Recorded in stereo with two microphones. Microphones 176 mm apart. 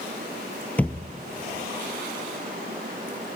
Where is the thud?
10° left (ahead or behind), 1.1 m.